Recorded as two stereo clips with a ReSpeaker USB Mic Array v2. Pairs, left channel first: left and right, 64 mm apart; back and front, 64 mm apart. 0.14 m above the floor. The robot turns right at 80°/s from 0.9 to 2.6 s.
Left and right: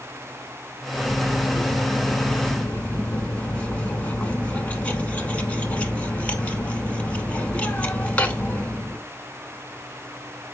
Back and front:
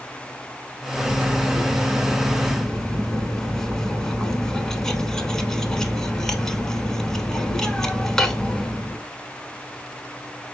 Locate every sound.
1.0 s cutlery clinking: 20° right, 0.6 m; by 9.0 s 110° left, 0.6 m